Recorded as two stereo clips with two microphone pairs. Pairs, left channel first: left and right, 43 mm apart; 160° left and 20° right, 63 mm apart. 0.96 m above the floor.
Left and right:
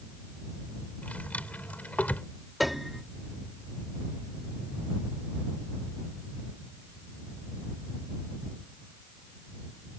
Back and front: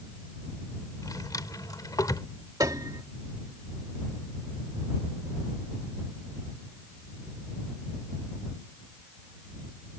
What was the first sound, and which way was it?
A drawer, 145° left.